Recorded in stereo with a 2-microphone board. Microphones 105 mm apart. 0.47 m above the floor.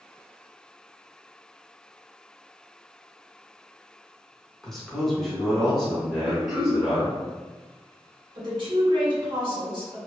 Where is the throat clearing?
5° right (ahead or behind), 0.8 m.